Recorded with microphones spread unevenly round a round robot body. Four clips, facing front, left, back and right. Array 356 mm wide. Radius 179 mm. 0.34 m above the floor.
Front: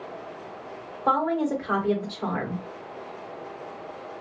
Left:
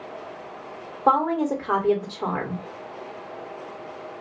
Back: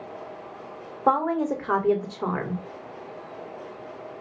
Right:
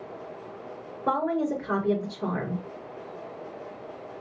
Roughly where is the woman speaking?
Behind.